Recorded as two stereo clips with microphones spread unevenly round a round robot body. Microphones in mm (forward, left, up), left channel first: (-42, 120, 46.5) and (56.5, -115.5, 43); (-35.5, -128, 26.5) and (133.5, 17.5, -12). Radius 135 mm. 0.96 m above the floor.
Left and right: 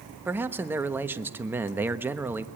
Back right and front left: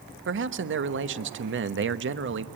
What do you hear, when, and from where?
0.2 s a man speaking: 15° left, 1.0 m